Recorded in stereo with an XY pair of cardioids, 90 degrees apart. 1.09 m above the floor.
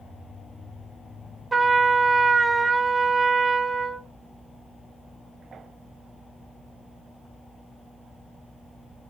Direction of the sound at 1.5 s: 25° right.